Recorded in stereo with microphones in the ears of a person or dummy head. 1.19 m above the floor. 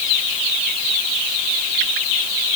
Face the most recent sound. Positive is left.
No sound to turn to.